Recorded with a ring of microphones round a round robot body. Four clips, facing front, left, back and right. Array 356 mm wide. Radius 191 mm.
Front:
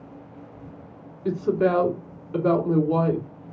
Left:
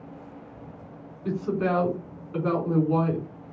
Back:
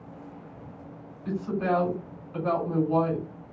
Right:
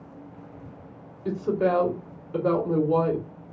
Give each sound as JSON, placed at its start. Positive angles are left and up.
{"t": 1.2, "sound": "a woman speaking", "azimuth_deg": 5, "distance_m": 3.0}